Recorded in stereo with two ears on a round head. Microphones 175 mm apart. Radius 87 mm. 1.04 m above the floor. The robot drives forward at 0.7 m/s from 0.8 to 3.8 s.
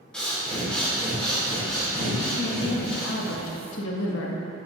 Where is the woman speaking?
50° left (ahead or behind), 1.6 m; by 4.4 s 80° left, 1.3 m.